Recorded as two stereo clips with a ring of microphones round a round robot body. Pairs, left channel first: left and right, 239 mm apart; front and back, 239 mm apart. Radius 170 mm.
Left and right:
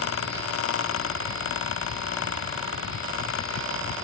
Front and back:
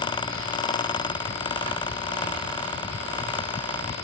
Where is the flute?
No flute in this recording.